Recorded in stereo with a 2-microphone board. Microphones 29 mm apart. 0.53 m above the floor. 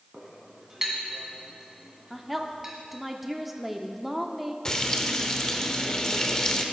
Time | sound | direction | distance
0.1 | a clink | 15° right (ahead or behind) | 2 m
2.1 | a woman speaking | 5° right (ahead or behind) | 0.7 m
4.7 | frying | 25° left (ahead or behind) | 0.8 m